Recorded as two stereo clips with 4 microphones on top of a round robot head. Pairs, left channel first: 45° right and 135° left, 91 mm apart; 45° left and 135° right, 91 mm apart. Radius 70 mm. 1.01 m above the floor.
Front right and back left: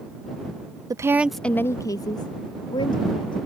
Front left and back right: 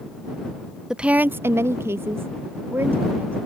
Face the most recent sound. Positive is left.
turn(degrees=-70)